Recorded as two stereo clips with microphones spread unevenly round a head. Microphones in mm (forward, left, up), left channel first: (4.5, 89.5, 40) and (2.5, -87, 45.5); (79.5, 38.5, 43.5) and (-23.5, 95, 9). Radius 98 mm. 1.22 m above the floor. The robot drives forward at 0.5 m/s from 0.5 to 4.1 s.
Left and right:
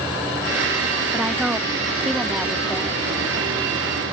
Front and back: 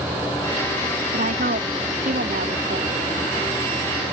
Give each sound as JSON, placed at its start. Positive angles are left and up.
{"t": 1.1, "sound": "a woman speaking", "azimuth_deg": -175}